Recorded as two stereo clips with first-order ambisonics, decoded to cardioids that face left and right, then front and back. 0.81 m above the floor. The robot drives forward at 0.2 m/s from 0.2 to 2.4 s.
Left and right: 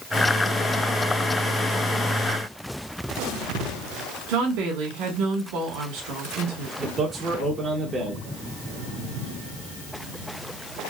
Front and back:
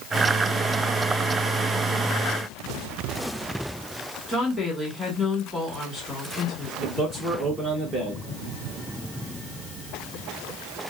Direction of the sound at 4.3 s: 85° right.